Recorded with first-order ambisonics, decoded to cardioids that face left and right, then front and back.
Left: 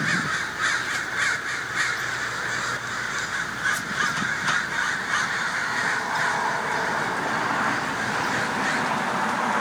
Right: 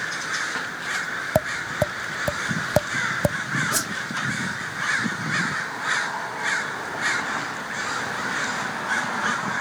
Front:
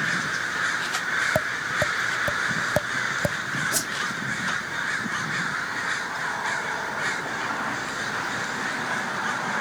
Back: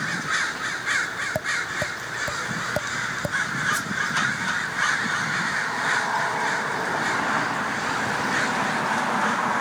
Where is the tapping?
80° right.